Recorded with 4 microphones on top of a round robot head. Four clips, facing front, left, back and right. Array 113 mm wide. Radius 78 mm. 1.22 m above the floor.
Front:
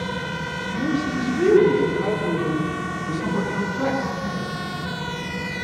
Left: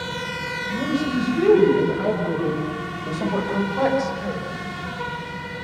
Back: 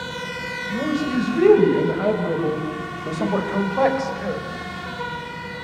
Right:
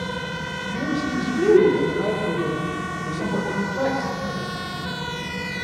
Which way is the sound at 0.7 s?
170° right.